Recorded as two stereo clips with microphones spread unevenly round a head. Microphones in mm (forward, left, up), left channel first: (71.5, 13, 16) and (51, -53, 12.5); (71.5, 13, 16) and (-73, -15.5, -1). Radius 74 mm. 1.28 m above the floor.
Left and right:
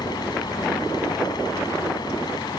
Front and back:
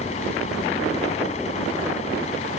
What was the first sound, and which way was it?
A fan, 60° left.